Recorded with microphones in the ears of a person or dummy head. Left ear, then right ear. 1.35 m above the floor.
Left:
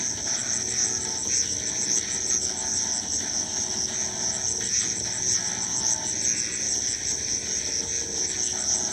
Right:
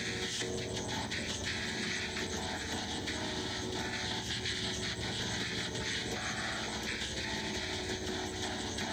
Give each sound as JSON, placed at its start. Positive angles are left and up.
{"t": 0.0, "sound": "an insect", "side_deg": 85}